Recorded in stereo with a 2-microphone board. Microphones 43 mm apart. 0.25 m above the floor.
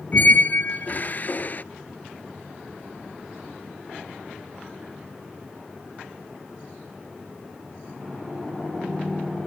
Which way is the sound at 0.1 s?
45° left (ahead or behind).